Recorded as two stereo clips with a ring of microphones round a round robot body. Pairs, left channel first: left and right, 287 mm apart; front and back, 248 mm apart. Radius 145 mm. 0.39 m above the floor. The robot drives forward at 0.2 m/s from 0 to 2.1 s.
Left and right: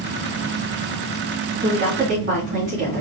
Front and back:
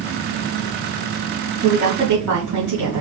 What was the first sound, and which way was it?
A woman speaking, 140° right.